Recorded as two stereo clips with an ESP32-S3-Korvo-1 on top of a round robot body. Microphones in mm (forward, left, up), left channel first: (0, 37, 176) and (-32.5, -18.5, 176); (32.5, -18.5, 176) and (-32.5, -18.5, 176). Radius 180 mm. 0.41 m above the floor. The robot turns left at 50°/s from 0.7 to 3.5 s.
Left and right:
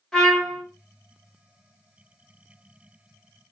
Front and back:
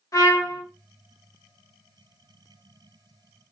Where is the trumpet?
20° right, 1.5 m.